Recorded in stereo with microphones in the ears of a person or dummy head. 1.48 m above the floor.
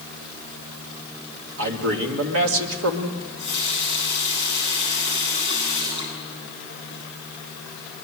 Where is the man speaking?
70° right (ahead or behind), 3 m.